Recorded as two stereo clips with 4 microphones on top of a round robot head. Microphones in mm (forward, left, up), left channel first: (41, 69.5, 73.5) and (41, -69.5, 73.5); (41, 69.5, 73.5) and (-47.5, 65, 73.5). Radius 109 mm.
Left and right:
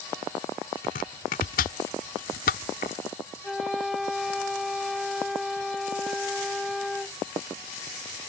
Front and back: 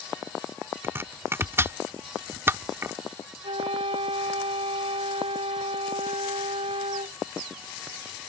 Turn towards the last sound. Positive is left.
turn(degrees=180)